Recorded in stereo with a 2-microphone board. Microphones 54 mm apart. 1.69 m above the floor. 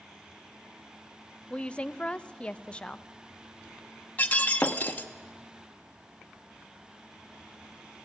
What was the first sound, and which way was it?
A woman speaking, 20° left (ahead or behind).